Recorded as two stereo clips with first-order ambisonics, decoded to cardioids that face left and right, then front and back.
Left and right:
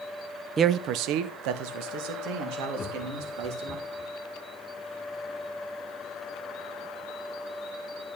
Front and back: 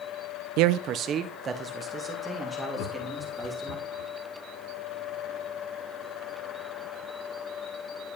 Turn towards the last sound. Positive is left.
turn(degrees=25)